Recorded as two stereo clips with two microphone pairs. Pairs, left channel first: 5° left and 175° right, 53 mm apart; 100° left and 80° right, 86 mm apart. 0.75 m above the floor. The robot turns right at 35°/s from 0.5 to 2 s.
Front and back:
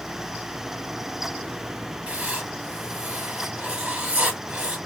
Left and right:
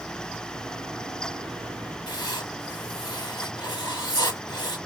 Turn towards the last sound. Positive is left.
turn(degrees=115)